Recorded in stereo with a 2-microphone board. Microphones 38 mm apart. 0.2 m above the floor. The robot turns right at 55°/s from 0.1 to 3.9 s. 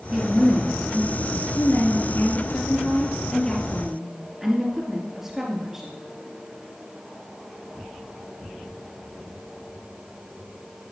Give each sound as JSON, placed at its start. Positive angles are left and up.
{"t": 0.1, "sound": "a woman speaking", "azimuth_deg": -10, "distance_m": 2.0}